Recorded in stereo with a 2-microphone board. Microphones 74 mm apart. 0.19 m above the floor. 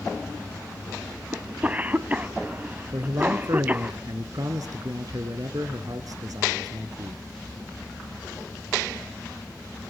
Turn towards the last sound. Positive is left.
turn(degrees=-55)  # may be behind; listen again after turning